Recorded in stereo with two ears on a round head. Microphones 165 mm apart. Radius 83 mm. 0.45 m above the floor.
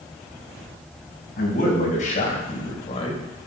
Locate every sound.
1.4 s a man speaking: 50° left (ahead or behind), 4 m; by 3.5 s 25° left (ahead or behind), 2 m